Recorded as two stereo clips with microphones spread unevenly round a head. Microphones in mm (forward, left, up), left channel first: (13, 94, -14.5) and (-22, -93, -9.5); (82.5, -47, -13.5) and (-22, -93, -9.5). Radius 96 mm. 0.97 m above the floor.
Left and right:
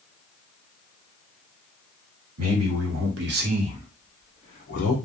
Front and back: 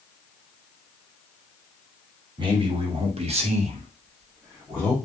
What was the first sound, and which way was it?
A man speaking, 110° right.